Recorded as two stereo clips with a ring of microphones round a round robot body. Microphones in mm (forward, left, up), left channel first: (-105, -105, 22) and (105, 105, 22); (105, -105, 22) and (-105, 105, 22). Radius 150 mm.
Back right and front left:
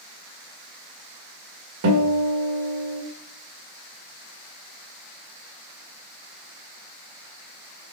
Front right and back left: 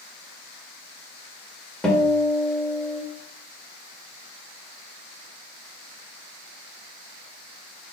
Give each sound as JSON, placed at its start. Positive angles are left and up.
{"t": 1.8, "sound": "a guitar", "azimuth_deg": 40, "distance_m": 1.6}